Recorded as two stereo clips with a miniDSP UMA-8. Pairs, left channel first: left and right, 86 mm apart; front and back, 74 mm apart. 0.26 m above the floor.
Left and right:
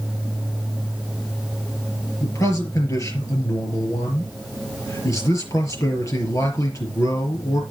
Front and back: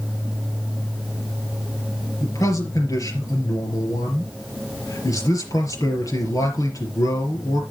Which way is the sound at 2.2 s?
40° left.